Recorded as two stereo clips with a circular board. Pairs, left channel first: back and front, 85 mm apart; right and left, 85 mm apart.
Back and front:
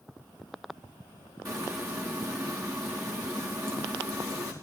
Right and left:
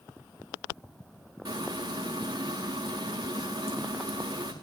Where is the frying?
50° left, 4.5 m.